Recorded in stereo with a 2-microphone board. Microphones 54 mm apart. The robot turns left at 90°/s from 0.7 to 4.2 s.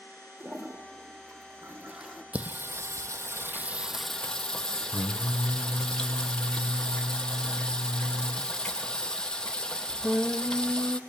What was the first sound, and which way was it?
A toilet flushing, 50° right.